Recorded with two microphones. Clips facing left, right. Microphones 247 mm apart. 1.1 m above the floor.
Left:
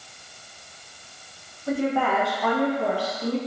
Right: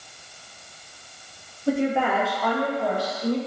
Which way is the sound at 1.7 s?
30° right (ahead or behind).